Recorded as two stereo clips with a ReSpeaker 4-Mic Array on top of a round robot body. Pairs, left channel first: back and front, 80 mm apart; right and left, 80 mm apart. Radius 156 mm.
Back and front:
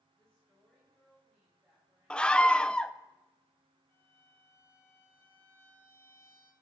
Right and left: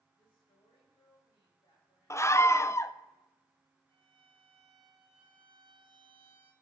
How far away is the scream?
About 0.8 m.